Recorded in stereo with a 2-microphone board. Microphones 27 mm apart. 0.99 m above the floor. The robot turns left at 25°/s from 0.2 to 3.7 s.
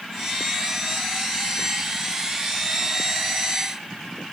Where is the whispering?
I don't hear whispering.